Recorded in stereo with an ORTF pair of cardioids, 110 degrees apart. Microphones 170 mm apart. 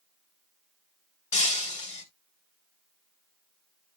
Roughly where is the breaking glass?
Ahead left.